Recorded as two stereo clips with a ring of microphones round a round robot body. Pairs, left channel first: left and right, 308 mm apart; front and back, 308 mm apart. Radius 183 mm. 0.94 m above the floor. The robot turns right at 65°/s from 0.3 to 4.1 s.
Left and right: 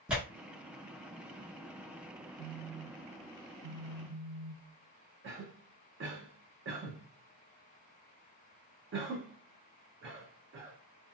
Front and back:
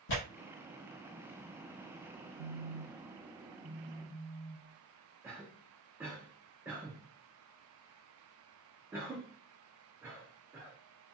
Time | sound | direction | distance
0.1 | tearing paper | 5° right | 1.0 m
2.4 | a phone buzzing | 175° right | 1.7 m
5.2 | a cough | 100° right | 0.7 m